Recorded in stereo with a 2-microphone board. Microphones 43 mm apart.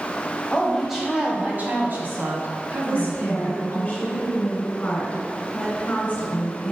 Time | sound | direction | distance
0.5 | a woman speaking | 15° left (ahead or behind) | 1.2 m
2.9 | a woman speaking | 30° left (ahead or behind) | 2.5 m